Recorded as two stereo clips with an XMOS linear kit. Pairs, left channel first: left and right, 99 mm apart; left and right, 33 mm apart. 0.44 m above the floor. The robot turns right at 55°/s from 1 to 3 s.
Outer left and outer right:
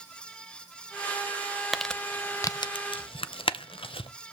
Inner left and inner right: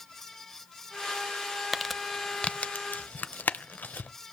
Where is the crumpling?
Centre (ahead or behind), 0.5 m; by 4.1 s 65° left (ahead or behind), 0.5 m.